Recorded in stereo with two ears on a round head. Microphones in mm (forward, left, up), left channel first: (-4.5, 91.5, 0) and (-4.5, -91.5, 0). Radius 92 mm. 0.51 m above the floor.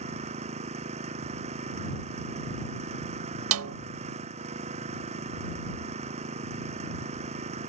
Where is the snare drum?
75° right (ahead or behind).